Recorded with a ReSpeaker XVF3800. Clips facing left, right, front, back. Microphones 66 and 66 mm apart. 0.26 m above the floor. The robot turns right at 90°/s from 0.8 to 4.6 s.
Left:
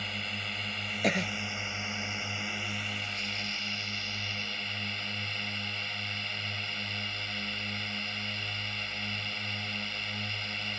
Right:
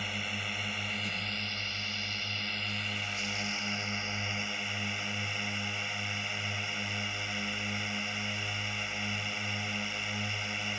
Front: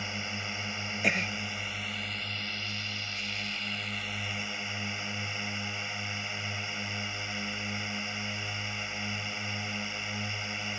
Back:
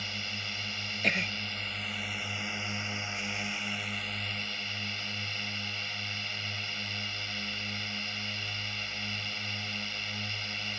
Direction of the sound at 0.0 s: 15° right.